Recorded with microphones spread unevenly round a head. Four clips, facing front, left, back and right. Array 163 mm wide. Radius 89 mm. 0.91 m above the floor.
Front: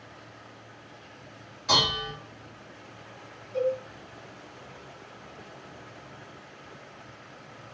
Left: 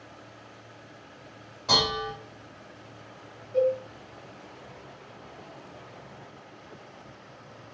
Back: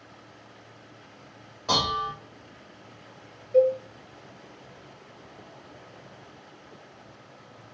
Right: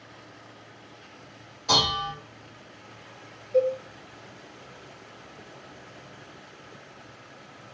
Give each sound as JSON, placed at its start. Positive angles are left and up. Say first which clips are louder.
{"t": 1.7, "sound": "dishes clattering", "louder": "right 1 dB, back 1 dB", "azimuth_deg": 165, "distance_m": 2.0}
{"t": 3.5, "sound": "a cowbell", "louder": "right 1 dB, back 7 dB", "azimuth_deg": -165, "distance_m": 0.7}